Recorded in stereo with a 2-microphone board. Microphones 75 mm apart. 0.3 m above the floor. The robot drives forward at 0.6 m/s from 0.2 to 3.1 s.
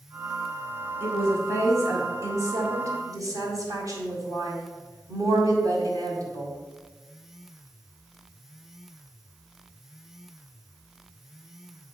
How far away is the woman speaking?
About 2.5 m.